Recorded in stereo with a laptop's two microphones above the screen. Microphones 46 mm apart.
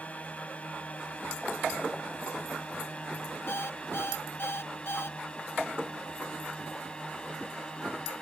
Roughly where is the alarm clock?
Left.